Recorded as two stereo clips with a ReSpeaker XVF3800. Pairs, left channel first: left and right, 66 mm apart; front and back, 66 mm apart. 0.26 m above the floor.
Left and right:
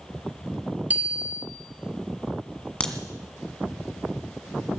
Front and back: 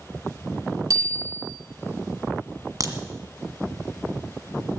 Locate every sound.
0.9 s a bicycle bell: 155° right, 2.5 m
2.8 s a crack: 160° left, 1.6 m